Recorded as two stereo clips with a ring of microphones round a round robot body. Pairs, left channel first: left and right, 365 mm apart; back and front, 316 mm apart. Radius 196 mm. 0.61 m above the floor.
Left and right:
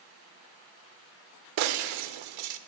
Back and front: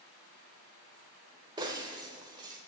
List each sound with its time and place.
1.6 s breaking glass: 80° right, 0.7 m